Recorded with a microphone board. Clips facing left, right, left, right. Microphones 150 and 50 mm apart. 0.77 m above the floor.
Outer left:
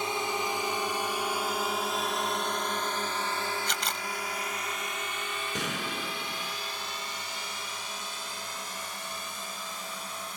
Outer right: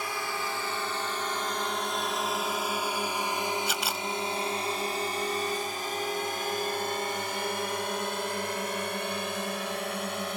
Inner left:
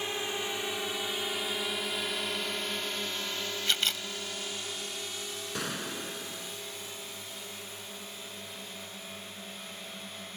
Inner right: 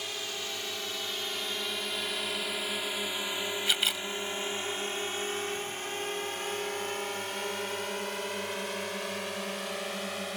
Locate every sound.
0.0 s a drone: 25° left (ahead or behind); by 10.4 s 70° right (ahead or behind)
3.7 s a camera shutter: 5° right (ahead or behind)
5.5 s a gunshot: 85° left